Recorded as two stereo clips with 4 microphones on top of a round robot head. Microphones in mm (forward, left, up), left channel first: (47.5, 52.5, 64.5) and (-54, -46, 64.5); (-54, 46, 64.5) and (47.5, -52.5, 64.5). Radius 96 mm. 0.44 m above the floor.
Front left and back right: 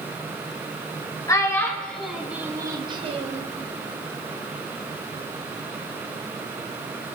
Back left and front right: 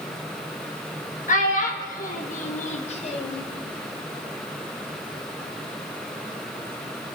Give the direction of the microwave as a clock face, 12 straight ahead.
I don't hear a microwave.